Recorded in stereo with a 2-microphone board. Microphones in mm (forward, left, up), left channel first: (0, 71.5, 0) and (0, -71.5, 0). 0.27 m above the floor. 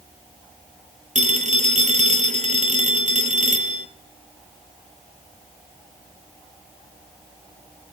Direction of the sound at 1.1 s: 55° right (ahead or behind).